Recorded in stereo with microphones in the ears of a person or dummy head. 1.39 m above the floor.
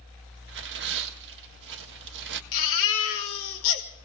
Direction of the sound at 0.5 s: 60° right (ahead or behind).